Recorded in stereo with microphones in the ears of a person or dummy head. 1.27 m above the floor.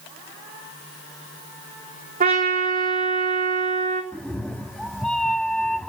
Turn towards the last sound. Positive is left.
turn(degrees=5)  # may be behind; listen again after turning